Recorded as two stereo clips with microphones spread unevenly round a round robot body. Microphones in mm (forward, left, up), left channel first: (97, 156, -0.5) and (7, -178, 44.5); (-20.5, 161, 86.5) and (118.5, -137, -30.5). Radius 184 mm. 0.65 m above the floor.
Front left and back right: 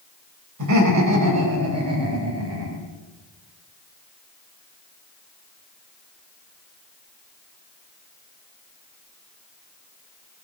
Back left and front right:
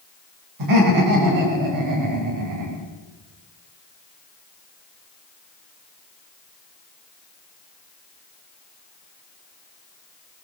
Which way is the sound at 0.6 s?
65° right.